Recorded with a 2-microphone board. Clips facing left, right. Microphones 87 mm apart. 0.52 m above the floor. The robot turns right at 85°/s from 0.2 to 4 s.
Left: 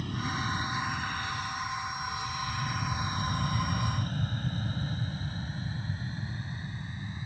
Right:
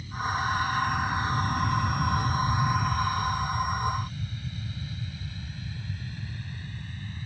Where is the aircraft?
65° left (ahead or behind); by 7.3 s 20° left (ahead or behind).